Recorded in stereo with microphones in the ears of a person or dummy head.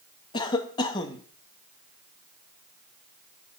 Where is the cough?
25° left (ahead or behind), 2 m.